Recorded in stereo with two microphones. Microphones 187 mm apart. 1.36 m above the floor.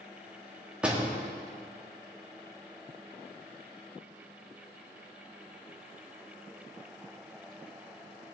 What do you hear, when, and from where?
0.8 s a door slam: 5° right (ahead or behind), 2 m